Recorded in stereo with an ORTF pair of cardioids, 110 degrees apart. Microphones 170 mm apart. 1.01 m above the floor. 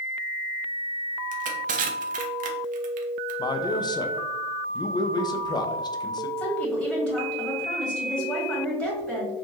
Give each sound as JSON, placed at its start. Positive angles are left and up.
{"t": 1.3, "sound": "crushing", "azimuth_deg": -55, "distance_m": 0.8}
{"t": 3.4, "sound": "a man speaking", "azimuth_deg": 25, "distance_m": 0.6}
{"t": 6.4, "sound": "a woman speaking", "azimuth_deg": 5, "distance_m": 1.9}